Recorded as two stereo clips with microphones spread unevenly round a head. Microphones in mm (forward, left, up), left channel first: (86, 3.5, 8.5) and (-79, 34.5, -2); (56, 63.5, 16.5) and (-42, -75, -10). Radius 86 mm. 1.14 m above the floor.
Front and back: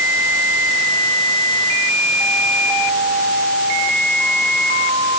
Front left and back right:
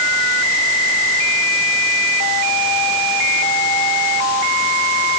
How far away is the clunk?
No clunk in this recording.